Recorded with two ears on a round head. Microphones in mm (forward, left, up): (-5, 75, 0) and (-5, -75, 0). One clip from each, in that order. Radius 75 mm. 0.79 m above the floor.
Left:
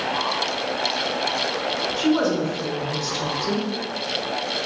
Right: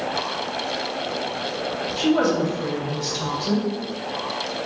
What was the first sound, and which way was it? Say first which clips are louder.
A woman speaking: right 3 dB; 5° left (ahead or behind).